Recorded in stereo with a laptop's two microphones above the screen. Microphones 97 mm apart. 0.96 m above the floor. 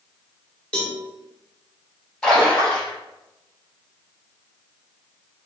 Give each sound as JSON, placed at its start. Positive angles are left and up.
{"t": 0.7, "sound": "a cowbell", "side_deg": 10, "distance_m": 1.1}
{"t": 2.2, "sound": "a splash", "side_deg": 5, "distance_m": 2.0}